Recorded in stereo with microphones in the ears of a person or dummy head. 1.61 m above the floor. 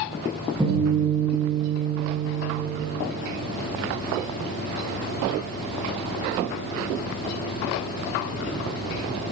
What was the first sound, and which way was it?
A guitar, 15° right (ahead or behind).